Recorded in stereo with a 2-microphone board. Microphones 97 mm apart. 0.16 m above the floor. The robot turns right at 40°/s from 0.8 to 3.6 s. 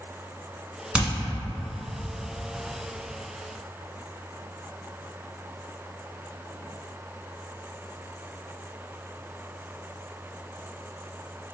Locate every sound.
0.9 s hammering: 10° right (ahead or behind), 1.2 m